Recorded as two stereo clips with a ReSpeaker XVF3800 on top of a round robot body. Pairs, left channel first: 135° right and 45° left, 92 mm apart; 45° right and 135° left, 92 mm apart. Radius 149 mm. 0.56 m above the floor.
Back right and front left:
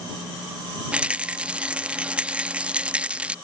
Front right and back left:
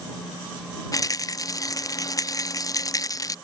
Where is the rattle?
25° right.